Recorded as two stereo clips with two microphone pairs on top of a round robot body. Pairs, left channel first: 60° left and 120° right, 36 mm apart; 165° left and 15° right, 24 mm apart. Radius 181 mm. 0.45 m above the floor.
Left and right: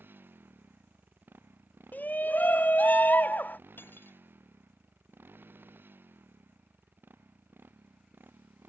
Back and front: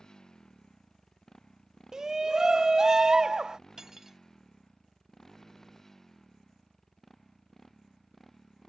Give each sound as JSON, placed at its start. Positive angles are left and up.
{"t": 0.0, "sound": "a motorcycle", "azimuth_deg": -130}
{"t": 1.9, "sound": "a shout", "azimuth_deg": 60}
{"t": 3.8, "sound": "cutlery clinking", "azimuth_deg": 60}